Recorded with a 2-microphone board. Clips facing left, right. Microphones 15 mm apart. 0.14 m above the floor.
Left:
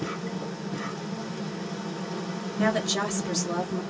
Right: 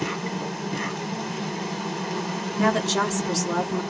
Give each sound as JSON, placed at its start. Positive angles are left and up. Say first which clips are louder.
{"t": 0.0, "sound": "an insect", "louder": "right 4 dB", "side_deg": -60, "distance_m": 1.7}
{"t": 2.6, "sound": "a woman speaking", "louder": "right 3 dB", "side_deg": -10, "distance_m": 2.0}